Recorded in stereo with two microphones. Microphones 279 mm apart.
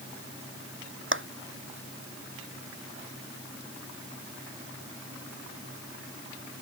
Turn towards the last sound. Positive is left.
turn(degrees=-45)  # may be behind; listen again after turning